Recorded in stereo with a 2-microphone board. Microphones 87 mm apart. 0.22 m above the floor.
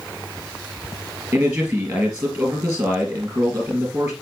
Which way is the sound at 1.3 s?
35° right (ahead or behind).